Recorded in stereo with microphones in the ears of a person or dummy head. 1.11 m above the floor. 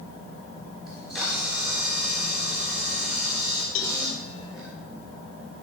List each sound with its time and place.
0.9 s a camera shutter: 5° left (ahead or behind), 3.5 m
3.8 s a cowbell: 70° left (ahead or behind), 1.0 m